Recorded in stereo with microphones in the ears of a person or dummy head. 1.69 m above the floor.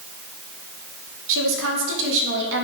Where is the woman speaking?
75° right (ahead or behind), 1.7 m; by 2.6 s 70° right (ahead or behind), 2.5 m.